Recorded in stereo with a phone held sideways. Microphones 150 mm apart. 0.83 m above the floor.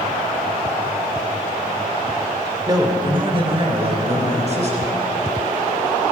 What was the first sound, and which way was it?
A man speaking, 25° right (ahead or behind).